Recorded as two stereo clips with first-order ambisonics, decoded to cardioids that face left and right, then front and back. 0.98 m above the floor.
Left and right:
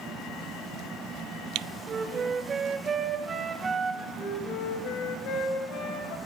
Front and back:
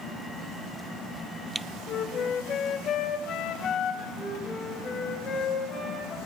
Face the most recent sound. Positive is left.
turn(degrees=60)